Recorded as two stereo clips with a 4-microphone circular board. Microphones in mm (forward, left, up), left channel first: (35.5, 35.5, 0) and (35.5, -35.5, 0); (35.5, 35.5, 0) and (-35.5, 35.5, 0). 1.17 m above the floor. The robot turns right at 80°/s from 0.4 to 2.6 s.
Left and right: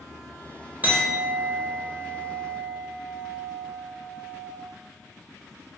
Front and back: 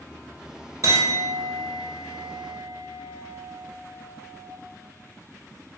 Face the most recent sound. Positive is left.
turn(degrees=-15)